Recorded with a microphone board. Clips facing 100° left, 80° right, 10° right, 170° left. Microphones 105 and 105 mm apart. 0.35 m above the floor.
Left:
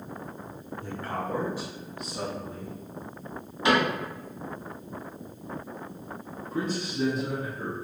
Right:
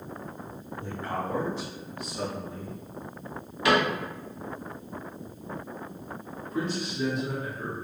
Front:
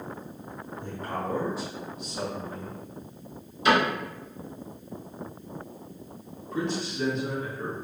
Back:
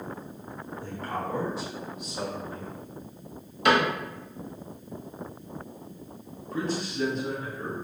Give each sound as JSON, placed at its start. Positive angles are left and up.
{"t": 0.8, "sound": "a man speaking", "azimuth_deg": -50, "distance_m": 1.3}
{"t": 3.6, "sound": "a cupboard door", "azimuth_deg": 160, "distance_m": 1.0}
{"t": 6.5, "sound": "a man speaking", "azimuth_deg": 140, "distance_m": 1.8}